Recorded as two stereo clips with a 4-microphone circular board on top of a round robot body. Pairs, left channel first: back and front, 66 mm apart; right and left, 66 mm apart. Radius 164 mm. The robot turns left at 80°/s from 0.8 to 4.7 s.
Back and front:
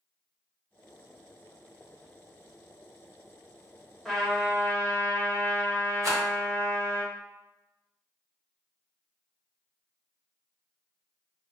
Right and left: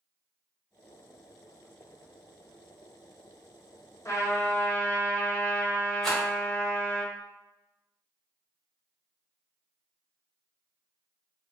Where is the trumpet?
95° right, 1.1 m; by 7.0 s 145° right, 1.1 m.